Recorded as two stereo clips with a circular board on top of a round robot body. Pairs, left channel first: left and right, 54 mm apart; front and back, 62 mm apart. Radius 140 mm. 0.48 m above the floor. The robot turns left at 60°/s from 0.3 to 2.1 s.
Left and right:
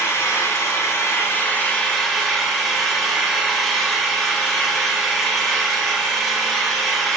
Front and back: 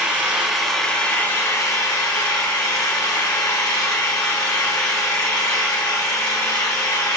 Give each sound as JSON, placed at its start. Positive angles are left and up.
{"t": 0.0, "sound": "an engine running", "azimuth_deg": 110, "distance_m": 1.2}